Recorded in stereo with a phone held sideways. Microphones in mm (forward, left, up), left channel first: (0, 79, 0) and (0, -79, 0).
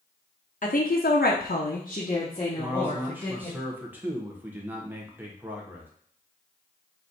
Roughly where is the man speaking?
Centre.